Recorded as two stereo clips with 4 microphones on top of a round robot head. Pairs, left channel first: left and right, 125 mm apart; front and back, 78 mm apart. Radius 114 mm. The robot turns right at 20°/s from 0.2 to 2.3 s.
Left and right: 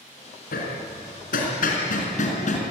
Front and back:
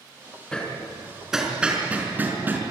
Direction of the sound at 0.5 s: 75° left.